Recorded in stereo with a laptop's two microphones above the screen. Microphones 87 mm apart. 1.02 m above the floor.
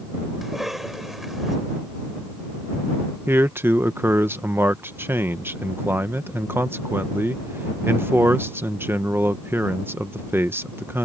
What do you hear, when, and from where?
0.4 s a cough: 5° right (ahead or behind)
3.3 s a man speaking: 25° right (ahead or behind)